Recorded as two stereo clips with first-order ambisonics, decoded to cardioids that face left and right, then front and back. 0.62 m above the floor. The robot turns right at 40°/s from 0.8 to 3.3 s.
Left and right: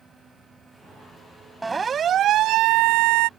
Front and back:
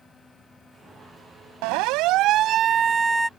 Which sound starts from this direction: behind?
A siren, at 1.6 s.